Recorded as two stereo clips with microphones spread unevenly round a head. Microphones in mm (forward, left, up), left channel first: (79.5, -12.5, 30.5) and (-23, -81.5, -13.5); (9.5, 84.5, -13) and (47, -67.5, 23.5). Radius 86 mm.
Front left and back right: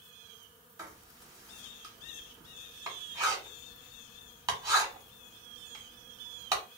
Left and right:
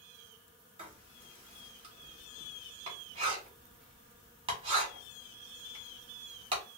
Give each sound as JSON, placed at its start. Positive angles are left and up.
{"t": 0.8, "sound": "writing", "azimuth_deg": -70, "distance_m": 1.5}